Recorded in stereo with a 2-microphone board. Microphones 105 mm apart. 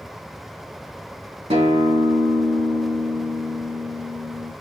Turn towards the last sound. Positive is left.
turn(degrees=-70)  # may be behind; listen again after turning